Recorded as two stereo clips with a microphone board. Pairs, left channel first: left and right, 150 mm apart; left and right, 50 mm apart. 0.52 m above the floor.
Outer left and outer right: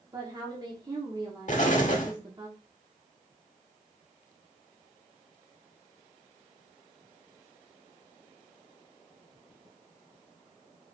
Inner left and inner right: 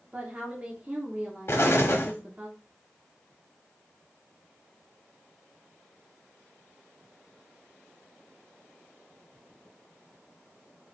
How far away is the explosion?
About 0.8 m.